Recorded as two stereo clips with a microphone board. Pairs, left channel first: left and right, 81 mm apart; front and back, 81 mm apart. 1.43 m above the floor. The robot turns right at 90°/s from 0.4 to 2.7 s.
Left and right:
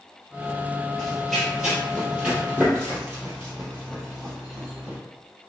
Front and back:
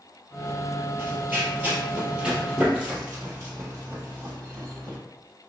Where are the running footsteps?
170° left, 1.6 m; by 5.0 s 155° right, 2.5 m.